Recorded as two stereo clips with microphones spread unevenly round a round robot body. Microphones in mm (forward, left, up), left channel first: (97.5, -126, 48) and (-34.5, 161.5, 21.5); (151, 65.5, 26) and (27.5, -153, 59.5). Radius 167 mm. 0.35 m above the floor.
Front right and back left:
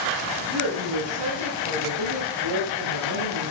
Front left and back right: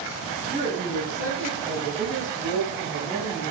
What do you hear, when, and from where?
0.5 s a woman speaking: 125° left, 4 m; by 3.5 s 145° left, 4.5 m